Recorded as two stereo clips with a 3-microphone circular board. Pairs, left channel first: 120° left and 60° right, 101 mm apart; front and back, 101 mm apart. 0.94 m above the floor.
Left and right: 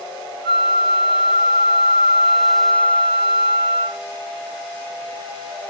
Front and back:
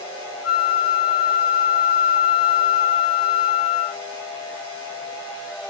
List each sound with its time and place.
0.4 s a flute: 90° right, 0.6 m